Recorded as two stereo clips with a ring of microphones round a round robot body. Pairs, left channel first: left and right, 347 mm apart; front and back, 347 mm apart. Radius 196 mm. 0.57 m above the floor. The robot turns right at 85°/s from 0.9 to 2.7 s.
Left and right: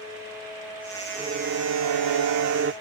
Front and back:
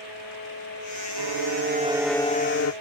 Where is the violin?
170° right; by 2.7 s 35° right.